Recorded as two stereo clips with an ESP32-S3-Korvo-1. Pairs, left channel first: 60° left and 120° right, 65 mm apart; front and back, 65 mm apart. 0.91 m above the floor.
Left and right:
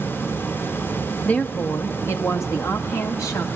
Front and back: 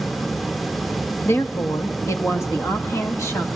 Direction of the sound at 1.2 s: 5° left.